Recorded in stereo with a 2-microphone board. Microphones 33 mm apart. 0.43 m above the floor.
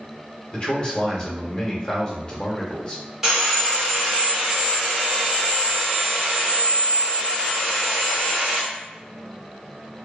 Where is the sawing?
10° right (ahead or behind), 1.2 m.